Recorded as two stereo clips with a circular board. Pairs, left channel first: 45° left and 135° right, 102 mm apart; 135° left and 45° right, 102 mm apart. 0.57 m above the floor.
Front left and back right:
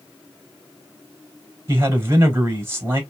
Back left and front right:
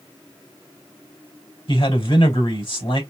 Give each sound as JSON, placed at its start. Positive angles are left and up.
{"t": 1.7, "sound": "a man speaking", "azimuth_deg": 160, "distance_m": 3.0}